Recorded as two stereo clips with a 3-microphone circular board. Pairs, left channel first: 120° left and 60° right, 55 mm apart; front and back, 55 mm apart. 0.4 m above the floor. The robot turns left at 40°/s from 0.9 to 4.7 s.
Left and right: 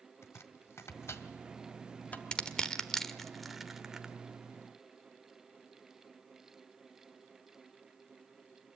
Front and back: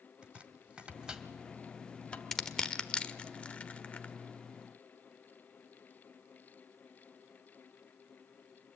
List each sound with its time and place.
0.2 s chopping: 115° left, 1.5 m; by 2.2 s 65° left, 1.5 m
2.3 s crushing: 80° left, 1.1 m; by 4.1 s 5° left, 1.1 m